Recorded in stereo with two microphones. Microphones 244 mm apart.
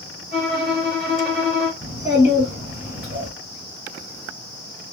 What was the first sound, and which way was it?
A violin, 45° right (ahead or behind).